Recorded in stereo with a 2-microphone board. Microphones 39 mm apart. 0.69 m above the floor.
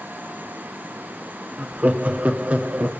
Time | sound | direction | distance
1.6 | laughter | 45° right (ahead or behind) | 1.0 m